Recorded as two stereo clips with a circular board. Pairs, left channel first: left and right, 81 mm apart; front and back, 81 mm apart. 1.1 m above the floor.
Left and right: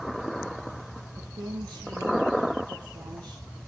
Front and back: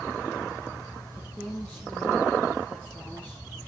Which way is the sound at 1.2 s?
70° right.